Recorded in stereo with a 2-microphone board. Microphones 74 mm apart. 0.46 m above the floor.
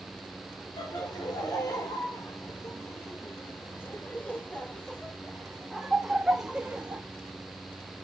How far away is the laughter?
About 3 m.